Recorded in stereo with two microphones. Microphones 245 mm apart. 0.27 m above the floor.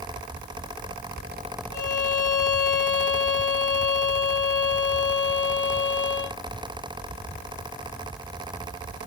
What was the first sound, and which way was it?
A violin, 50° right (ahead or behind).